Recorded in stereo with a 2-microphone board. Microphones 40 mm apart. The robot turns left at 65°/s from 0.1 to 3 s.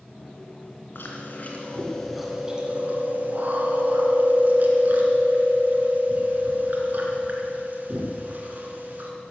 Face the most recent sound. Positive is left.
turn(degrees=-50)